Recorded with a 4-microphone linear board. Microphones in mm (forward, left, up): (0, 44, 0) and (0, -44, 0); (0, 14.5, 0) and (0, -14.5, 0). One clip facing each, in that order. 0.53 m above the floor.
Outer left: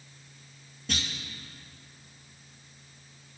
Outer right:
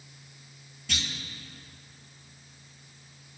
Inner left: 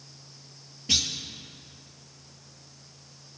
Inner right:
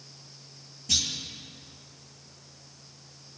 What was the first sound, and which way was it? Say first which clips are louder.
A clunk: outer left 2 dB, inner left 2 dB; 40° left (ahead or behind).